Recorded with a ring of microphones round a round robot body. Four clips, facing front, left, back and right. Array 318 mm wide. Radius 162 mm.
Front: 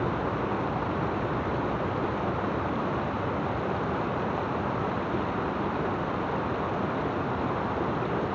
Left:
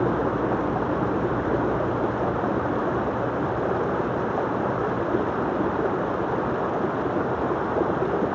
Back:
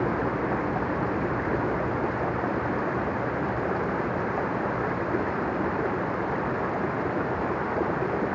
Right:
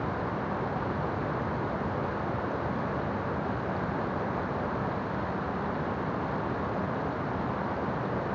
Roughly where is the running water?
Left.